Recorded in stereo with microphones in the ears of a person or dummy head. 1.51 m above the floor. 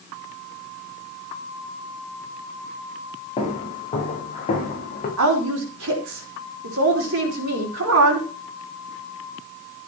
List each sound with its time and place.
3.4 s footsteps: 25° left (ahead or behind), 8 m; by 5.1 s 40° left (ahead or behind), 7 m
5.2 s a woman speaking: 85° right, 5 m